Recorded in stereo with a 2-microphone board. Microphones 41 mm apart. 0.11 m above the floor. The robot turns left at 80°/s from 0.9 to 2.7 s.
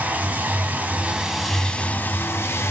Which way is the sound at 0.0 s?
135° right.